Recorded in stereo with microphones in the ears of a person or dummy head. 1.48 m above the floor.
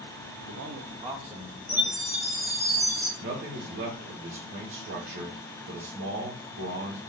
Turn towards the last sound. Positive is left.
turn(degrees=-60)  # may be behind; listen again after turning